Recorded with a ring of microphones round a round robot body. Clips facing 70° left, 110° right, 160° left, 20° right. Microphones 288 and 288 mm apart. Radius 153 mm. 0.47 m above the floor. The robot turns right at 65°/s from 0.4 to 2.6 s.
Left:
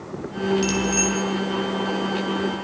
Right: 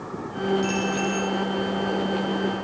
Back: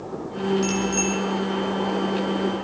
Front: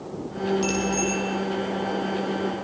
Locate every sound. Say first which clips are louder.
0.6 s a bicycle bell: left 2 dB, back 1 dB; 65° left, 5.5 m; by 1.1 s 100° left, 5.5 m